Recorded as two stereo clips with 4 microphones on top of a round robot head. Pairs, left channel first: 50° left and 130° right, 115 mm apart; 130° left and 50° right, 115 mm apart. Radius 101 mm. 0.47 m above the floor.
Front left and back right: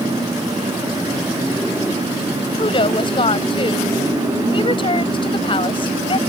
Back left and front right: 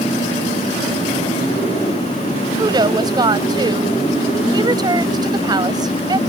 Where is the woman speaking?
5° left.